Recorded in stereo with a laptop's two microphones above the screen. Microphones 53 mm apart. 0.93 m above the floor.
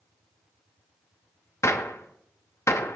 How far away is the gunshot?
About 0.6 m.